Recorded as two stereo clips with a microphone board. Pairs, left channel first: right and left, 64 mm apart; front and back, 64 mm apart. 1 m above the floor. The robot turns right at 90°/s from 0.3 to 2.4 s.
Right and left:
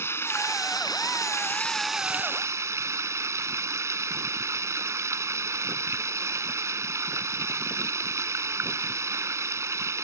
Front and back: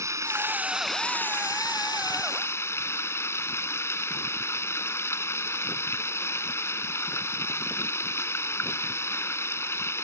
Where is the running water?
140° right; by 10.0 s 45° left.